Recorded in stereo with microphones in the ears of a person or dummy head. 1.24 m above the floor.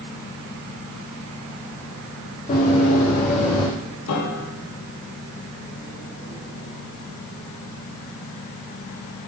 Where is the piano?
75° left (ahead or behind), 1.9 m.